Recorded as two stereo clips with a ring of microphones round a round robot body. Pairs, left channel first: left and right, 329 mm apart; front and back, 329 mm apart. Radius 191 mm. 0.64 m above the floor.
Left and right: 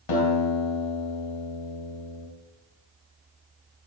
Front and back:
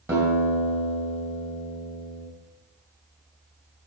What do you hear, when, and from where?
0.1 s a guitar: 95° left, 3 m